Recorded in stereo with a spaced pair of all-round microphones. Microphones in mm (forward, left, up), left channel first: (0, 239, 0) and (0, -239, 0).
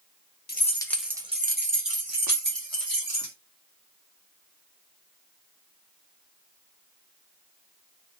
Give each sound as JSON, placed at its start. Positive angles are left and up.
{"t": 0.5, "sound": "keys jangling", "side_deg": 20, "distance_m": 0.8}